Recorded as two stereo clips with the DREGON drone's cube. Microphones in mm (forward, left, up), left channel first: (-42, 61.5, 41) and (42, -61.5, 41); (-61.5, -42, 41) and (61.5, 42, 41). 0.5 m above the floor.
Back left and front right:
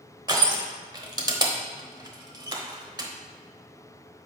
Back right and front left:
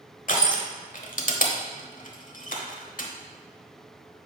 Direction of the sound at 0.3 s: 115° right.